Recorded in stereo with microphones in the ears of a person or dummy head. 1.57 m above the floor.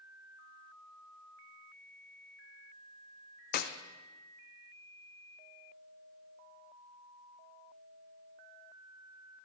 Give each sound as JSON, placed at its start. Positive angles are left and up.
{"t": 3.5, "sound": "a clap", "side_deg": 50, "distance_m": 0.6}